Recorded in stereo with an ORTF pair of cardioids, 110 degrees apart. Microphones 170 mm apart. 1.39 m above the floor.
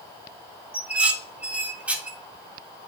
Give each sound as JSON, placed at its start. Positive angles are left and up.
{"t": 0.7, "sound": "dishes clattering", "azimuth_deg": -5, "distance_m": 1.6}